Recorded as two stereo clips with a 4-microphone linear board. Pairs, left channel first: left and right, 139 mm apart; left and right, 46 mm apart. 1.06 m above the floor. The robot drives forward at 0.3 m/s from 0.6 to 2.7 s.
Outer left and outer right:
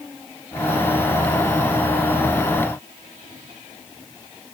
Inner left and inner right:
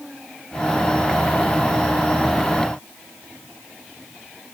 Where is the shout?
No shout in this recording.